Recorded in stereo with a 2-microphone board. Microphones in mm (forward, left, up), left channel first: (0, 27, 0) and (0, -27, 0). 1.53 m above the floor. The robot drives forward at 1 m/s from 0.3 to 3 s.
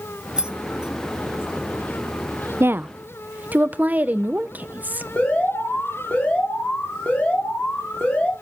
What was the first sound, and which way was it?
Keys jangling, 20° right (ahead or behind).